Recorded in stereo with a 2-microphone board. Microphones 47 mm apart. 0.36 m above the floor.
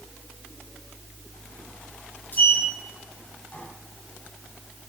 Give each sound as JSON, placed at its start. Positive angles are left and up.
{"t": 2.3, "sound": "a sliding door", "side_deg": 40, "distance_m": 2.0}